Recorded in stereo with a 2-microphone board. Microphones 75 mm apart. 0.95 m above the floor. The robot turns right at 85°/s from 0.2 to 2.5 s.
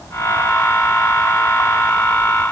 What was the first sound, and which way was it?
Only background noise.